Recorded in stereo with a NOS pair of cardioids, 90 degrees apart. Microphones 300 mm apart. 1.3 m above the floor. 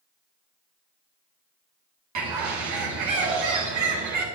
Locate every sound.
2.1 s a bird: 70° right, 2.5 m